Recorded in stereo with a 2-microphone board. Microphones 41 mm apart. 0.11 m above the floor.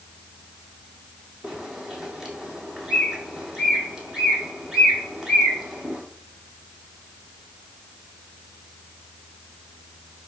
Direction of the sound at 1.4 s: 15° right (ahead or behind).